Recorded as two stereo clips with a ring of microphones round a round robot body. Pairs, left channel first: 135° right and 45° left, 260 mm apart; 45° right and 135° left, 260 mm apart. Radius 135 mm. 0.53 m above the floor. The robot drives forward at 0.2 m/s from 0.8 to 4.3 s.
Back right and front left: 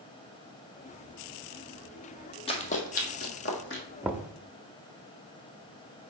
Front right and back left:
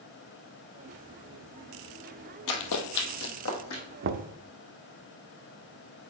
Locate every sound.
2.5 s running footsteps: 65° right, 1.2 m; by 3.8 s 85° right, 2 m
4.0 s knocking: 125° left, 0.5 m; by 4.3 s 130° left, 0.5 m